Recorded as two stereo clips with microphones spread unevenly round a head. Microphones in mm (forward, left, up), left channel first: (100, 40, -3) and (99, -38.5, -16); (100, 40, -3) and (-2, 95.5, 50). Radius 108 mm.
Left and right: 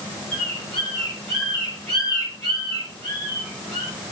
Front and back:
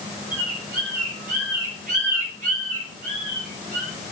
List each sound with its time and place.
0.3 s a bird: 175° left, 7 m